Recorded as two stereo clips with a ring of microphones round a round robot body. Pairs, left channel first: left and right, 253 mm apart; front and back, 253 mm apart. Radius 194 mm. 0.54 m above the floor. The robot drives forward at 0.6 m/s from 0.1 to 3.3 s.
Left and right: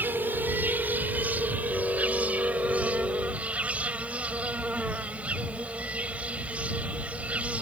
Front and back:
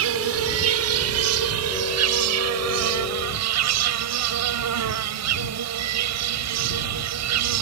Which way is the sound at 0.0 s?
175° right.